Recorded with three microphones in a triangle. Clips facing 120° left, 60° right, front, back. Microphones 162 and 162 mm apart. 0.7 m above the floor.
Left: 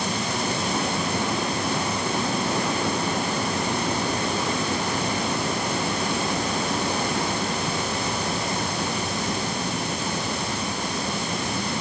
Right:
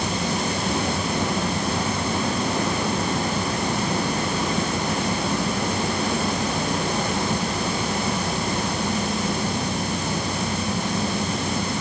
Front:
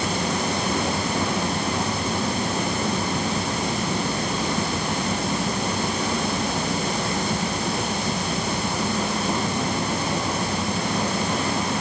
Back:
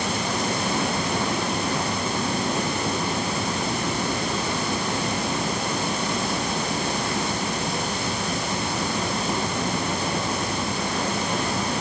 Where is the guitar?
I don't hear a guitar.